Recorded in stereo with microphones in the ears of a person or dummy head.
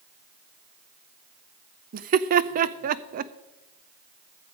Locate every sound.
1.9 s laughter: 45° right (ahead or behind), 0.5 m